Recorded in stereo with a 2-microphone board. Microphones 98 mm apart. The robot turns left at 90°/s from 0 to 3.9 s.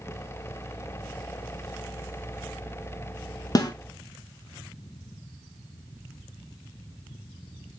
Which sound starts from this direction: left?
A snare drum, at 3.5 s.